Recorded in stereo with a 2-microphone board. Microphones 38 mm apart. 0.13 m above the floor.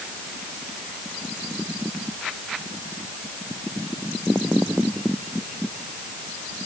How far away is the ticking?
No ticking in this recording.